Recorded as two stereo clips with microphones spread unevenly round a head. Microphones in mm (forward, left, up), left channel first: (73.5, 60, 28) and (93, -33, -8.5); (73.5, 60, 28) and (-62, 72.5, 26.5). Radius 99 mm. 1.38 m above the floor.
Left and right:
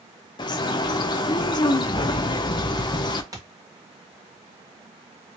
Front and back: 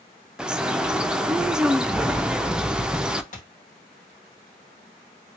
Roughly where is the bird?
Left.